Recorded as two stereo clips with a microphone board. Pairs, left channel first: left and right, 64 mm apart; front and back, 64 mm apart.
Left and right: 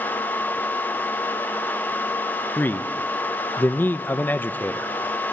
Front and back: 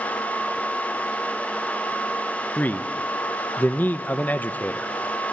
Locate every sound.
2.6 s a man speaking: 50° left, 1.1 m